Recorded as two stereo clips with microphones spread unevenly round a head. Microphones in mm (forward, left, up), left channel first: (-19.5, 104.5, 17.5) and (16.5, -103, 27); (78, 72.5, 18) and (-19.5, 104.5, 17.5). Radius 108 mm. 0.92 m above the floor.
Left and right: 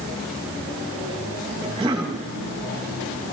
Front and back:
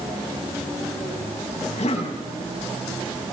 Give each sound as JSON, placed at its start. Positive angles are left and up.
{"t": 1.6, "sound": "a cough", "azimuth_deg": -10, "distance_m": 7.0}